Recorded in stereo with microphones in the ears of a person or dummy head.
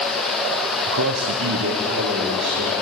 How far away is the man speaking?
About 0.7 m.